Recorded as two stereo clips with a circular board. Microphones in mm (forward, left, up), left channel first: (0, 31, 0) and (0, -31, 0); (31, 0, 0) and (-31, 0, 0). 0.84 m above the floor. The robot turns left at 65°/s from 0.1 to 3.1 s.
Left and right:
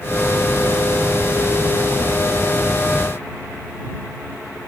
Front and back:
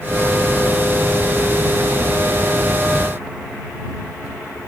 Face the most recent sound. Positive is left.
No sound to turn to.